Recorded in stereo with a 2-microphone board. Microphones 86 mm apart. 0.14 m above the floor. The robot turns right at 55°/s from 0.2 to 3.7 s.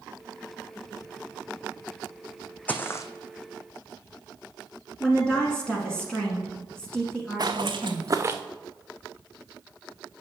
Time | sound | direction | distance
2.7 | footsteps | 20° left (ahead or behind) | 0.5 m
5.0 | a woman speaking | 10° left (ahead or behind) | 1.1 m
7.4 | footsteps | 50° right (ahead or behind) | 0.9 m